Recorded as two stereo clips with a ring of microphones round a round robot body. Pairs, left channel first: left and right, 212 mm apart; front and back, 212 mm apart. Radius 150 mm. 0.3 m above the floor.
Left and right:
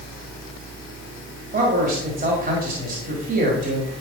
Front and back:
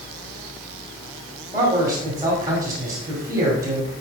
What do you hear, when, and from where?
1.5 s a man speaking: 110° right, 2.0 m